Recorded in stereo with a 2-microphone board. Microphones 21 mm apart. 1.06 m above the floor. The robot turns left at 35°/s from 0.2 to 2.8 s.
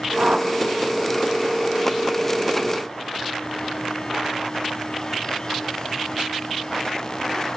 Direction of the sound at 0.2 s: 55° right (ahead or behind).